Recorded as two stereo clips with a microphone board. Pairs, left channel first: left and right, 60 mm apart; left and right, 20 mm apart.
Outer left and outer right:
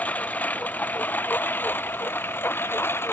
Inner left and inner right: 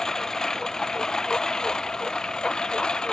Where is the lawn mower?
25° left (ahead or behind); by 3.1 s 40° left (ahead or behind).